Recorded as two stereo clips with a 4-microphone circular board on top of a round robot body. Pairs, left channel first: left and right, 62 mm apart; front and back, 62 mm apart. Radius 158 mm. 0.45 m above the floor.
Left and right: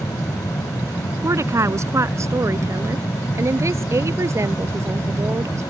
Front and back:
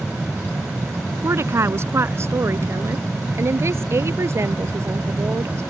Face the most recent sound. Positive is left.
turn(degrees=-130)